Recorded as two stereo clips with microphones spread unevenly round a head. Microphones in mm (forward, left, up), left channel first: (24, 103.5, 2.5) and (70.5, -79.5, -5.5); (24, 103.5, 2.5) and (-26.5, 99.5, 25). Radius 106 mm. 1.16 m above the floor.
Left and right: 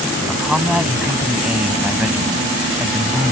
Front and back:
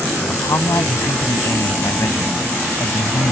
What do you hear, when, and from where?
0.3 s a man speaking: 10° left; by 3.3 s 5° left